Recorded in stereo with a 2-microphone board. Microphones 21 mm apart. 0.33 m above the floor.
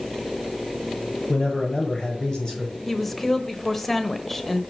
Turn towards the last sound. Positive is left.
turn(degrees=10)  # may be behind; listen again after turning